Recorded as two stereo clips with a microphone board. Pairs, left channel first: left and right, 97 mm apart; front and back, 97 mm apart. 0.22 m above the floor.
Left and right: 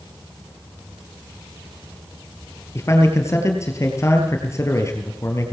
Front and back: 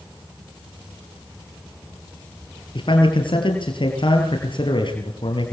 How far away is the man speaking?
About 3.5 m.